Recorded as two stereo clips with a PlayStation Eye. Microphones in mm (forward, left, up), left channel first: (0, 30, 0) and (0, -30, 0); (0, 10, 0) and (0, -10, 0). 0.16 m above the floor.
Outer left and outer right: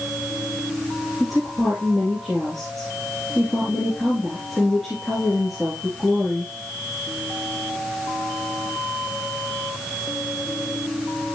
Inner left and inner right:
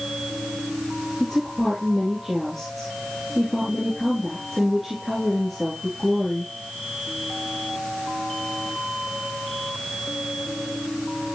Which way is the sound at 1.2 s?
Centre (ahead or behind).